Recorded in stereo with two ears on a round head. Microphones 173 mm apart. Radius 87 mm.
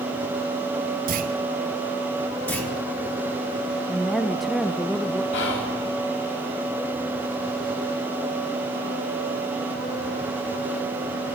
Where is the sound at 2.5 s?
10° left (ahead or behind), 3 m.